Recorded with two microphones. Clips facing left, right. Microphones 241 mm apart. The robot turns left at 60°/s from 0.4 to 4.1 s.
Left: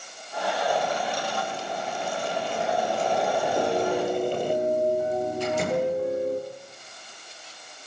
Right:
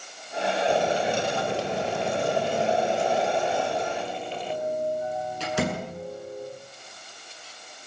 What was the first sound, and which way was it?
Boiling, 25° right.